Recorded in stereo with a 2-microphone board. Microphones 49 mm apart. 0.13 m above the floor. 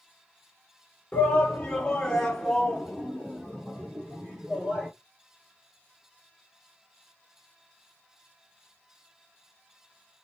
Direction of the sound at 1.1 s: 25° left (ahead or behind).